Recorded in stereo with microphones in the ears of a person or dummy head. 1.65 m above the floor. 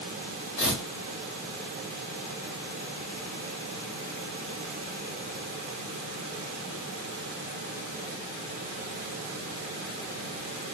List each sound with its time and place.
0.6 s tearing paper: 40° left (ahead or behind), 2.0 m